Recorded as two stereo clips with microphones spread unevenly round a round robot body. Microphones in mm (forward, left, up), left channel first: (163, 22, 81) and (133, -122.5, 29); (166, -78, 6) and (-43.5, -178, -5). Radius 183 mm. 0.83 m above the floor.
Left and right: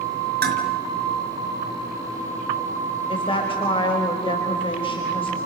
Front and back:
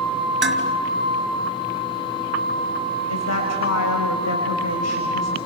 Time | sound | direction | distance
0.4 | dishes clattering | 110° right | 4.5 m
3.1 | a woman speaking | 20° left | 5 m